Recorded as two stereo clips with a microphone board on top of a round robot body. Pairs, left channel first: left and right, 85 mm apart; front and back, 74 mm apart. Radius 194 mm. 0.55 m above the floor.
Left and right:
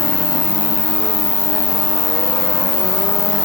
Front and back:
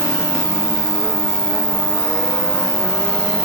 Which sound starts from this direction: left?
An insect, at 0.0 s.